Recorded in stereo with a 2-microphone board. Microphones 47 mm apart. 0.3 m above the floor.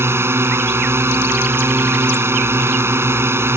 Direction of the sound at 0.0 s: 65° right (ahead or behind).